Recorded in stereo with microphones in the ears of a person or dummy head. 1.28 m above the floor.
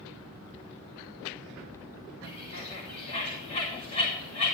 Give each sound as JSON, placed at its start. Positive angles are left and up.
{"t": 2.2, "sound": "a bird", "side_deg": 35, "distance_m": 2.5}